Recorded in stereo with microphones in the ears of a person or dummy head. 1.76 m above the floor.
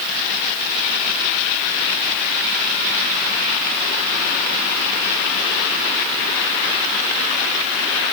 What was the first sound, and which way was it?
Only background noise.